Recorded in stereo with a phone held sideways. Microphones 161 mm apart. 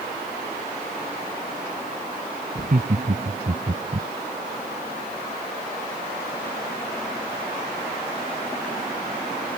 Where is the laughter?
60° right (ahead or behind).